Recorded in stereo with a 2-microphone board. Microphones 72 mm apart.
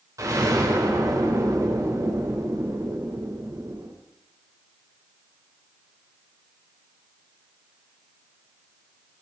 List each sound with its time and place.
0.2 s an explosion: 45° right (ahead or behind), 4.5 m